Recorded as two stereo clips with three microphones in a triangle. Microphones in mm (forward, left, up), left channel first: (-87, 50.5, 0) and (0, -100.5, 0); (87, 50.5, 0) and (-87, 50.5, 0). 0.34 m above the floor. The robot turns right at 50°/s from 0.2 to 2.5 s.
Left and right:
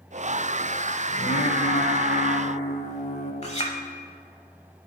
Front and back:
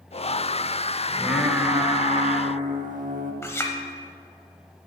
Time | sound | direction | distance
1.1 | singing | 85° left | 0.8 m
3.4 | a clink | 75° left | 0.9 m